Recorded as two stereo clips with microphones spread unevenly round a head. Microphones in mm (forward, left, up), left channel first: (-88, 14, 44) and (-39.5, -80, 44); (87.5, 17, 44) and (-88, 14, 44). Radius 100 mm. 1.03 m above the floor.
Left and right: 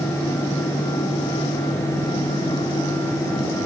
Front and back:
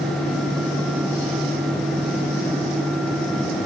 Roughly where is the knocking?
I don't hear knocking.